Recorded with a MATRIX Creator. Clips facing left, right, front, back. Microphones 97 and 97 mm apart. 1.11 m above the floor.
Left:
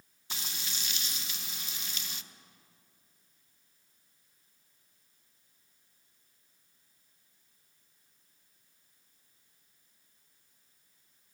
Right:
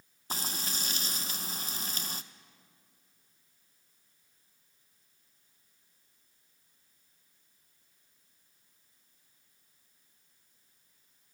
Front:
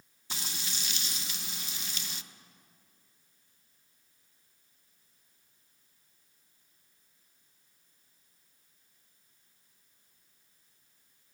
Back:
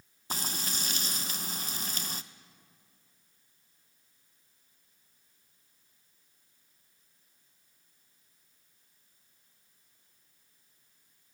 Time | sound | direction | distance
0.3 | frying | 135° right | 0.6 m